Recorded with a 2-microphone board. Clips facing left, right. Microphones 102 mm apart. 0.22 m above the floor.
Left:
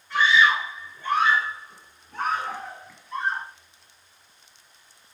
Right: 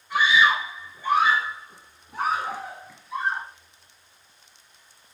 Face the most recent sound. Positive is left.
turn(degrees=-5)  # may be behind; listen again after turning